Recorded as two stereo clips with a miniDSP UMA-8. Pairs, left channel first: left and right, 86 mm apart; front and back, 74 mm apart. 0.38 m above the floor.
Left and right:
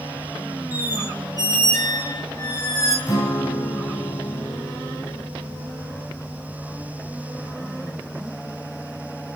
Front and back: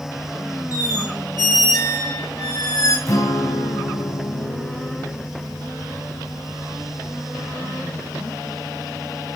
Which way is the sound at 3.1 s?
40° left.